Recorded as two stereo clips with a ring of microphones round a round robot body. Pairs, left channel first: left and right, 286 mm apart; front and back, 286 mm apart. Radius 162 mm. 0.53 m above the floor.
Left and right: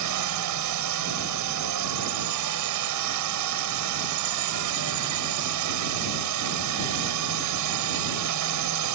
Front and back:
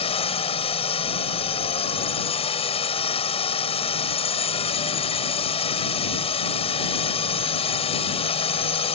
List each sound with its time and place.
0.0 s a drone: 70° right